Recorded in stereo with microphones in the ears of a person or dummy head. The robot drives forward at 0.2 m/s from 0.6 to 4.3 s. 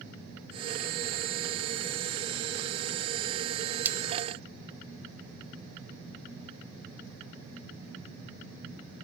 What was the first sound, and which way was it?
A splash, 10° right (ahead or behind).